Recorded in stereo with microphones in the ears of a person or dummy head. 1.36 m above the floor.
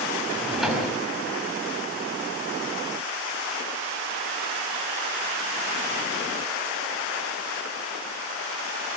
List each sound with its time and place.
0.3 s a drawer: centre (ahead or behind), 4 m